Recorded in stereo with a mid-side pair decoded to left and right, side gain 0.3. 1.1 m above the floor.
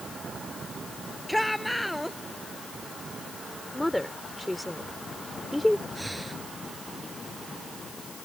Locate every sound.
1.3 s a shout: 10° left
3.7 s a woman speaking: 15° left
6.0 s breathing: 10° right